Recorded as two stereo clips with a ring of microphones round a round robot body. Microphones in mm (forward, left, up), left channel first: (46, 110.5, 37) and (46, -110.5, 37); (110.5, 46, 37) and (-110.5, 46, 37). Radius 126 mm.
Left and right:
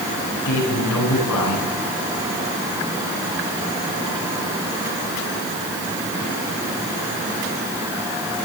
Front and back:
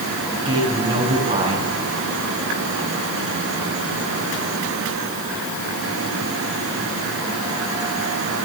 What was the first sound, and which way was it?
A man speaking, 110° left.